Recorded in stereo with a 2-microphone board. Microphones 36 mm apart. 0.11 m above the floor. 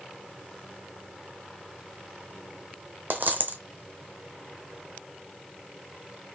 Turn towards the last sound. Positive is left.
turn(degrees=-60)  # may be behind; listen again after turning